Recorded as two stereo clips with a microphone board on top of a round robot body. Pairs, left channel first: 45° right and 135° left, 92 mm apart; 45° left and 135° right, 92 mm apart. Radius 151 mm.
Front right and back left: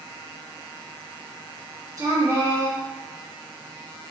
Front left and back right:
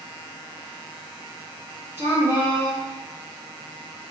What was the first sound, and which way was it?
A woman speaking, 170° left.